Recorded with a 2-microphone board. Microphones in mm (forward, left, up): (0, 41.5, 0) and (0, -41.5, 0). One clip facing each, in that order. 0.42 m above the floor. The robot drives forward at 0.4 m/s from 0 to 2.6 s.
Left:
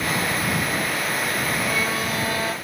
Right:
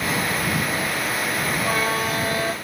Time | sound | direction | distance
1.6 | a violin | 45° right (ahead or behind) | 0.7 m